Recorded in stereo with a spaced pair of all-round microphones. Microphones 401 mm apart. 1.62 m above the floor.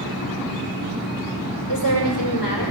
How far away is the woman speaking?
About 5 m.